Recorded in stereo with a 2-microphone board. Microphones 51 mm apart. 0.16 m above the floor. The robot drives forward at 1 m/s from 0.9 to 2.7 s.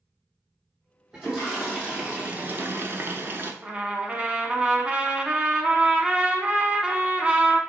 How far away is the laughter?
I don't hear laughter.